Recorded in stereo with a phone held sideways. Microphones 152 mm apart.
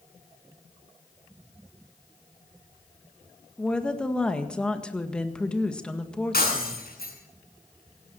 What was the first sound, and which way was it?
A woman speaking, 5° left (ahead or behind).